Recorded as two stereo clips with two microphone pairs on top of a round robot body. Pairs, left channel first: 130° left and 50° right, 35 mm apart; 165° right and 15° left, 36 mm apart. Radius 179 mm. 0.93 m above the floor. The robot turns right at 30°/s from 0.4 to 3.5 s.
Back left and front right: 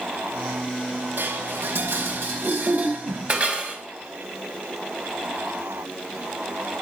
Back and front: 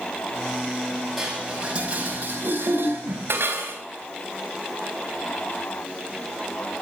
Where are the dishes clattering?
65° right, 5 m; by 3.8 s 5° left, 5 m.